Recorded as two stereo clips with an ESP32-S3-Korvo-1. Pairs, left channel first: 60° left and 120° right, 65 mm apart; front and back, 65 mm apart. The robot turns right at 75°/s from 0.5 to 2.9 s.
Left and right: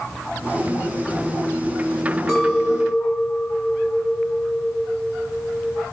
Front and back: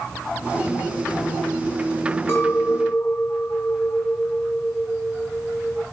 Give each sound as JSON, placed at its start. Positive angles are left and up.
{"t": 2.3, "sound": "a clink", "azimuth_deg": -20, "distance_m": 1.0}